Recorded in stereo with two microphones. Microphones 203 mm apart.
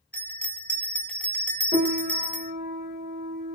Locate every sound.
0.1 s a bell: 5° left (ahead or behind), 1.1 m
1.7 s a piano: 55° right (ahead or behind), 1.8 m